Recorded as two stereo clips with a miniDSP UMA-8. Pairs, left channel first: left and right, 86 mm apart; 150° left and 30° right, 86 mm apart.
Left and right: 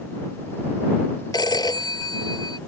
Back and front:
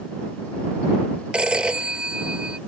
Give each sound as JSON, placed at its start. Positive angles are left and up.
{"t": 1.3, "sound": "a phone ringing", "azimuth_deg": 50}